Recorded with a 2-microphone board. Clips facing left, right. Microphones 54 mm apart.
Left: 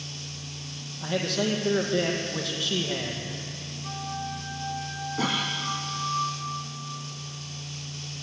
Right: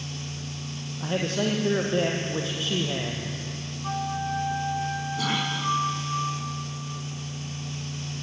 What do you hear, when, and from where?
1.0 s a man speaking: 30° right (ahead or behind), 5.5 m
3.8 s a flute: 55° right (ahead or behind), 8 m
5.2 s a cough: 35° left (ahead or behind), 7.5 m